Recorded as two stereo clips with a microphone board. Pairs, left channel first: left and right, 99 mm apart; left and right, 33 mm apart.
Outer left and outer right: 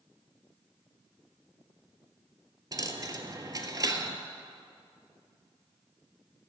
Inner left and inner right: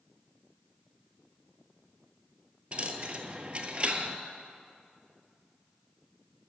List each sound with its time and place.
2.7 s a dropped coin: 35° right (ahead or behind), 0.6 m